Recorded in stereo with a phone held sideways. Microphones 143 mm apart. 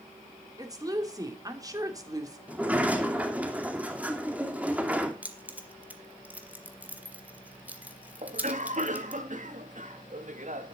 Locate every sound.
0.6 s a woman speaking: 25° right (ahead or behind), 3 m
2.5 s a sliding door: 10° right (ahead or behind), 2.5 m
5.2 s keys jangling: 10° right (ahead or behind), 1.8 m
8.2 s a cough: 60° right (ahead or behind), 1.7 m